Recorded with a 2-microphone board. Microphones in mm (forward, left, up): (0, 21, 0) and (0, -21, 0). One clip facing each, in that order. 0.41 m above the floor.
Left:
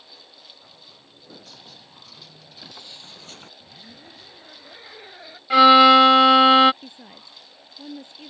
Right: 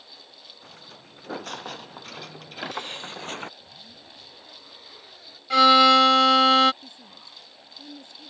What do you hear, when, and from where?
0.6 s footsteps: 65° right (ahead or behind); by 3.5 s 45° right (ahead or behind)
3.6 s a zipper: 40° left (ahead or behind)
5.5 s a violin: 20° left (ahead or behind)
6.8 s a woman speaking: 35° left (ahead or behind)